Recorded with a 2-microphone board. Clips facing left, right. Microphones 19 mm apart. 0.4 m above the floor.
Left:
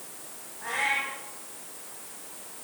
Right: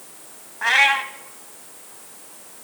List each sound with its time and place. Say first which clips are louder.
0.6 s a cat meowing: right 11 dB; 70° right (ahead or behind), 1.4 m